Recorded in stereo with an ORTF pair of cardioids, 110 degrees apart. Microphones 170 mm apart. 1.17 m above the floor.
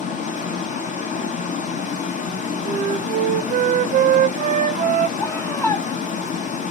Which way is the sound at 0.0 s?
45° left.